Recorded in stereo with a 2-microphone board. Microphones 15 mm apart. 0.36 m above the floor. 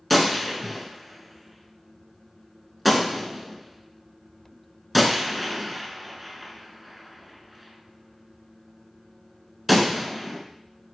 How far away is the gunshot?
About 0.7 m.